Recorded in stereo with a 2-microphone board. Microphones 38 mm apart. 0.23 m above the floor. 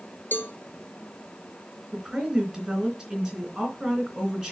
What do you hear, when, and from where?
0.3 s a cowbell: 65° left (ahead or behind), 0.9 m
1.9 s a woman speaking: 10° right (ahead or behind), 3 m